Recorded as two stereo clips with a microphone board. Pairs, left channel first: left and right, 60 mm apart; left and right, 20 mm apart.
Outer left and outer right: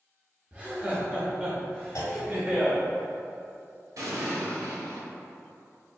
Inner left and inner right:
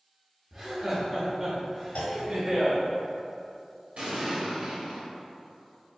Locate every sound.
0.5 s laughter: 20° right (ahead or behind), 0.8 m; by 2.8 s 30° right (ahead or behind), 2 m
1.9 s a clunk: 75° left (ahead or behind), 0.9 m
4.0 s an explosion: 70° right (ahead or behind), 1.1 m